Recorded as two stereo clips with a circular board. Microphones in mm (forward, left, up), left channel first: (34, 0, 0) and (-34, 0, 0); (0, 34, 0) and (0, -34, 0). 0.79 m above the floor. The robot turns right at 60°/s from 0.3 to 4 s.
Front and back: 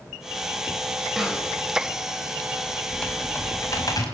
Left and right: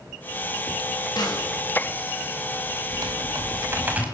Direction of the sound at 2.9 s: 85° right.